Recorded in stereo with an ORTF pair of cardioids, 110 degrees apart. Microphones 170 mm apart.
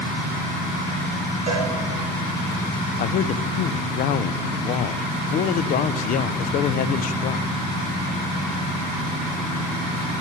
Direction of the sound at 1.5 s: 45° right.